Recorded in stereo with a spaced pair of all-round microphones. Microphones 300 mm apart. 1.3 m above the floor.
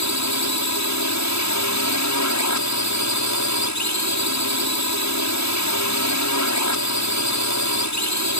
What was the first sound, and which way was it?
A drone, 65° left (ahead or behind).